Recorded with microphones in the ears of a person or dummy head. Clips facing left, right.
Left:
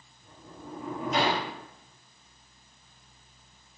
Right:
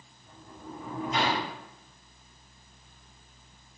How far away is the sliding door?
About 0.9 m.